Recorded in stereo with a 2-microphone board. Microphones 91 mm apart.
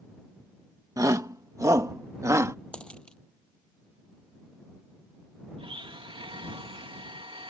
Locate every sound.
1.0 s a shout: 40° right (ahead or behind); by 2.5 s 35° right (ahead or behind)
2.7 s a dropped coin: 10° left (ahead or behind)
5.6 s a blender: 80° right